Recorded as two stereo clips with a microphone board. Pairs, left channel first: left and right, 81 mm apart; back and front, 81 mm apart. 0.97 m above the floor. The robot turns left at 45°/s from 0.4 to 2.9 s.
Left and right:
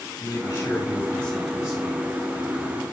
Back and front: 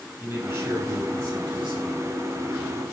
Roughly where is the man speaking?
Ahead left.